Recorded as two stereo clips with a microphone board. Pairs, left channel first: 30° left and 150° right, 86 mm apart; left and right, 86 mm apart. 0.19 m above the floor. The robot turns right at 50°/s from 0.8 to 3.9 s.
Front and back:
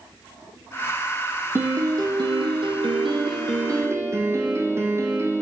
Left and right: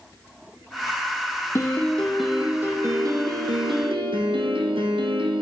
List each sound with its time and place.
1.6 s a piano: 150° left, 2 m; by 5.4 s 95° right, 2 m